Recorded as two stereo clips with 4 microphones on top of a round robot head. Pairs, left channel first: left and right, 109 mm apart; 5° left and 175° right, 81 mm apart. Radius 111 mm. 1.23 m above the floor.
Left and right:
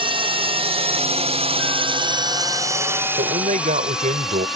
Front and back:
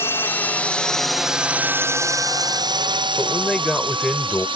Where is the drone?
55° right; by 4.6 s straight behind.